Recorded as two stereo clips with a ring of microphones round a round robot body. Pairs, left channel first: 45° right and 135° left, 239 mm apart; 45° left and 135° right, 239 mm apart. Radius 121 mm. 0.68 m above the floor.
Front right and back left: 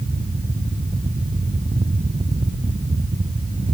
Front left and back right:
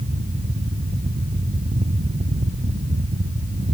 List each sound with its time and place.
Only background noise.